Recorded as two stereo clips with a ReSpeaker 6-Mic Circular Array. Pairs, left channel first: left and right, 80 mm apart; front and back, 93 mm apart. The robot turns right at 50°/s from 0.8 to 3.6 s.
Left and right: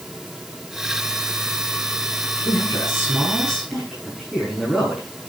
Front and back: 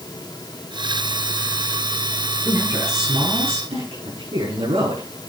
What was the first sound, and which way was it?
A man speaking, 120° left.